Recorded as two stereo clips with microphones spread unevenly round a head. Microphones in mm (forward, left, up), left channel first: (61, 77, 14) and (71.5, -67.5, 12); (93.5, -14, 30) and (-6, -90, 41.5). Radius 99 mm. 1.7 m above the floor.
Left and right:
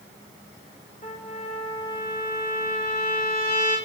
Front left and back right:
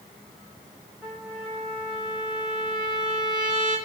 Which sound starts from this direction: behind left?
A trumpet, at 1.0 s.